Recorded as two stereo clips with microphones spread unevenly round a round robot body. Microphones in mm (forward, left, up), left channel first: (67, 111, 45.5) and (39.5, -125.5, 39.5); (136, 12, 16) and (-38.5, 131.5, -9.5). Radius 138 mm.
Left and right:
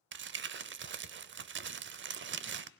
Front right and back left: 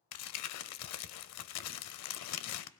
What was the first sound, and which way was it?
Crumpling, 50° right.